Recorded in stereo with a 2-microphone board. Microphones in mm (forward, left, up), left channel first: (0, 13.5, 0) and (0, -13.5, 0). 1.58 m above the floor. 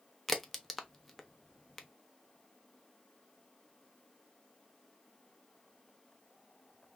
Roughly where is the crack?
Centre.